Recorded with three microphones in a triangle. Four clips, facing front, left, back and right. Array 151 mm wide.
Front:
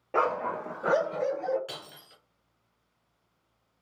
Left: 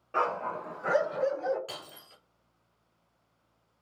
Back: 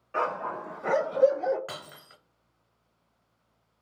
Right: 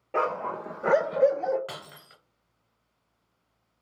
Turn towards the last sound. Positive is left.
turn(degrees=-140)